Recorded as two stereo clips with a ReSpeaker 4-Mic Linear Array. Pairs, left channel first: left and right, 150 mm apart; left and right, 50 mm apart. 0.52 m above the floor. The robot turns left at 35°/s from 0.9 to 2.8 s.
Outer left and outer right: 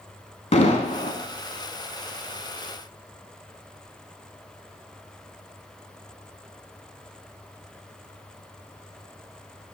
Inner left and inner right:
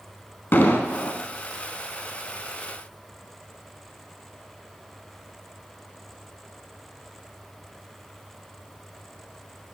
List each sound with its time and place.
0.5 s an explosion: 50° left (ahead or behind), 0.7 m; by 1.2 s 55° left (ahead or behind), 0.7 m